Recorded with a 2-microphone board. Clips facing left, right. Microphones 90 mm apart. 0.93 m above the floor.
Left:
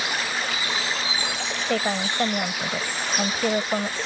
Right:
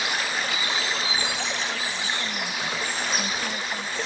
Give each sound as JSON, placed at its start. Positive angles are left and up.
{"t": 1.6, "sound": "a woman speaking", "side_deg": 65}